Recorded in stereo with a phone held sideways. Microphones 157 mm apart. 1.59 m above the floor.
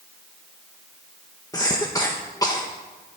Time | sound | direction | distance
1.5 | a cough | 25° left (ahead or behind) | 1.2 m